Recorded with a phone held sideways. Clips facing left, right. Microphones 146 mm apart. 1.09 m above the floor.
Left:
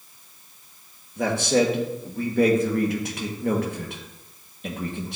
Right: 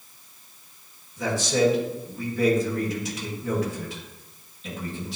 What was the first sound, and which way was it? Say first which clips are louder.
A man speaking: left 2 dB; 60° left (ahead or behind).